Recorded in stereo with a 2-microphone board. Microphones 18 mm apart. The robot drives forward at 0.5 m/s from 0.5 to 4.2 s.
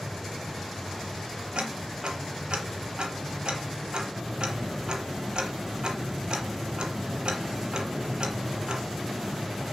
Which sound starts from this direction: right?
Ticking, at 1.6 s.